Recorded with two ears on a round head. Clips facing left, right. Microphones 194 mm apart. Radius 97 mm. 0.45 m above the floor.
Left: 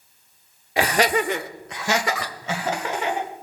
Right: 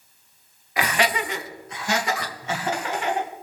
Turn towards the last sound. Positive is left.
turn(degrees=75)  # may be behind; listen again after turning